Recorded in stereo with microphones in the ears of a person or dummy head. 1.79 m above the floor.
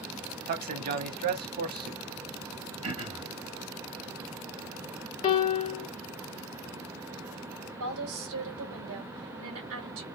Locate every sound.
0.5 s a man speaking: 50° right (ahead or behind), 1.1 m
2.8 s throat clearing: 40° right (ahead or behind), 2.0 m
5.2 s a piano: 30° left (ahead or behind), 0.9 m
7.8 s a woman speaking: 75° right (ahead or behind), 2 m